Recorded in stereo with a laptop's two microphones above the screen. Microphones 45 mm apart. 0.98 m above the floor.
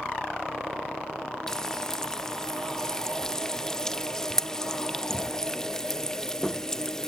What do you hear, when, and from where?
1.5 s frying: 15° left (ahead or behind), 0.7 m